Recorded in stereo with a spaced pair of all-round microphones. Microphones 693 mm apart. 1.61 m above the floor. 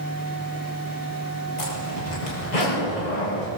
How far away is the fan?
About 4.5 m.